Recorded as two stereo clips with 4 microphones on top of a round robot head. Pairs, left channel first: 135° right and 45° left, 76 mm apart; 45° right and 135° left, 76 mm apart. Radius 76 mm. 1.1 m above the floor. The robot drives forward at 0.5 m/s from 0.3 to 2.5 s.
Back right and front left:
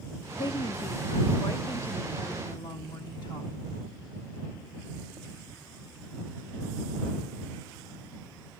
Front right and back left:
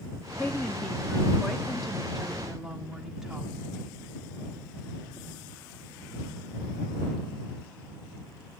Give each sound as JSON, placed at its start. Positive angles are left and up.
{"t": 0.4, "sound": "a woman speaking", "azimuth_deg": -115, "distance_m": 1.3}